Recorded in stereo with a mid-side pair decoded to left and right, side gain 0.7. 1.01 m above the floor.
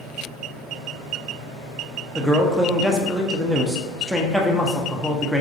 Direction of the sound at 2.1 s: 5° right.